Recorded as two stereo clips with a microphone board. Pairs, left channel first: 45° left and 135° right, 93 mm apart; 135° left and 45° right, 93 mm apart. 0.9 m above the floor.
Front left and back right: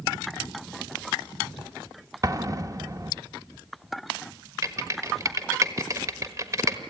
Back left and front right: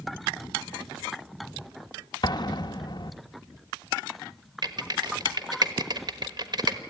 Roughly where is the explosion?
Behind.